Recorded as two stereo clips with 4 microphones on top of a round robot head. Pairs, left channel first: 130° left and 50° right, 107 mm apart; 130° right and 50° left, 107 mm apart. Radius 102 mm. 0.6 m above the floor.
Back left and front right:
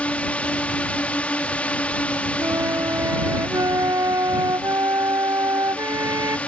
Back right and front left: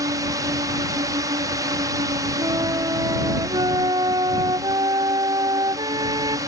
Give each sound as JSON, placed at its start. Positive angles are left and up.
{"t": 0.0, "sound": "a drone", "azimuth_deg": 60}
{"t": 2.4, "sound": "a flute", "azimuth_deg": 5}